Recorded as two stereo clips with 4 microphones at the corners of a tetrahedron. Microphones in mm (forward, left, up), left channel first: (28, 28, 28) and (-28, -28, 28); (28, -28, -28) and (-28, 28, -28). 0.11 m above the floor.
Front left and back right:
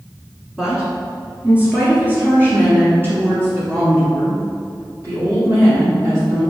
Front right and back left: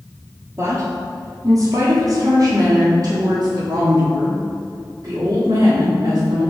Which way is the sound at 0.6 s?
145° left.